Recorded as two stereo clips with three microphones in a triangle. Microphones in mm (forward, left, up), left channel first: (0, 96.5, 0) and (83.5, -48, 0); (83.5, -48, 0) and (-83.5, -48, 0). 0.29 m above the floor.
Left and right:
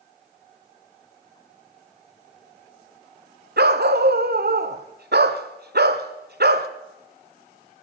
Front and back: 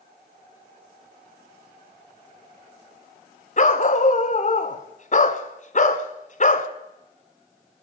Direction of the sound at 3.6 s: 45° right.